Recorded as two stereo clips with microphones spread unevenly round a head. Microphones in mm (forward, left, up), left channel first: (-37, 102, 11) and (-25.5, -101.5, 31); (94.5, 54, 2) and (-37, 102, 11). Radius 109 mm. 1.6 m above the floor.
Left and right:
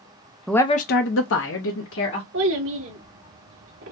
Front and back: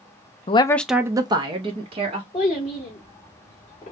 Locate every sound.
0.5 s a woman speaking: 5° right, 0.5 m; by 2.2 s 120° left, 1.6 m
2.3 s a child speaking: 80° right, 1.8 m